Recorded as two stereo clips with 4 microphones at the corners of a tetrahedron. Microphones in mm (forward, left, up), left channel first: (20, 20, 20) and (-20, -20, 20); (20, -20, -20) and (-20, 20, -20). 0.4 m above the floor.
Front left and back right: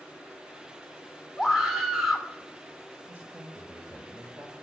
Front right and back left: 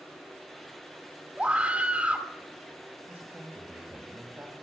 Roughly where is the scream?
Behind left.